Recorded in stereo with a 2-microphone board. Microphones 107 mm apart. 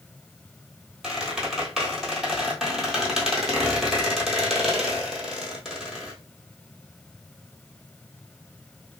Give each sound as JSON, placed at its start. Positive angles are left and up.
{"t": 1.0, "sound": "a squeak", "side_deg": -5, "distance_m": 1.2}